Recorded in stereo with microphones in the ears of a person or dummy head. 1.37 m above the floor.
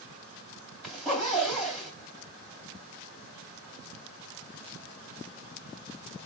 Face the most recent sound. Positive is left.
turn(degrees=0)  # may be behind; listen again after turning